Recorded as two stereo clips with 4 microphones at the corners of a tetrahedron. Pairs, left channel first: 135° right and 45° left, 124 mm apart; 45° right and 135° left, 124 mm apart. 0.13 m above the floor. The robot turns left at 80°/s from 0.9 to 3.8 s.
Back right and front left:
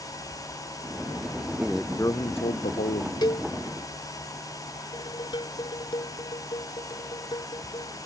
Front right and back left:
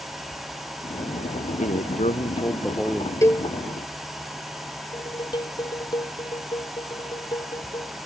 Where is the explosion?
No explosion in this recording.